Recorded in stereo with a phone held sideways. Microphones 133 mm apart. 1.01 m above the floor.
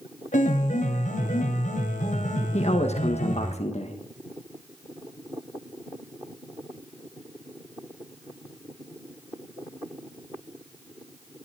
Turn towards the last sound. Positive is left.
turn(degrees=55)  # may be behind; listen again after turning